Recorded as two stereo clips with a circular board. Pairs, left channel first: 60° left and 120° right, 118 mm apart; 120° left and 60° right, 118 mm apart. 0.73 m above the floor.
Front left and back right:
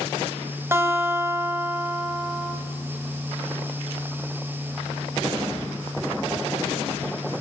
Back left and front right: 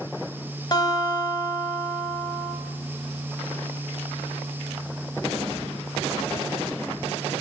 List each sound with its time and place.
0.7 s a guitar: 175° left, 2.5 m